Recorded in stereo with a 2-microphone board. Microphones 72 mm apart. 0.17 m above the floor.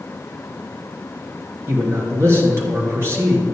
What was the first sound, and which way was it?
A man speaking, 40° right (ahead or behind).